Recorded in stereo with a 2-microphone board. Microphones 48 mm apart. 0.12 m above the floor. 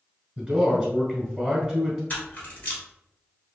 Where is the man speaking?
10° right (ahead or behind), 1.3 m.